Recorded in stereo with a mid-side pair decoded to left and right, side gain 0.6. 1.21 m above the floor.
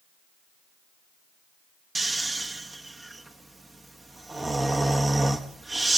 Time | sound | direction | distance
1.9 | snoring | 20° right | 1.4 m